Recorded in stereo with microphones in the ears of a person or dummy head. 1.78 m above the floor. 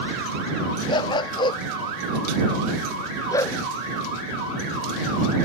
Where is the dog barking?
30° left (ahead or behind); by 3.6 s 20° left (ahead or behind).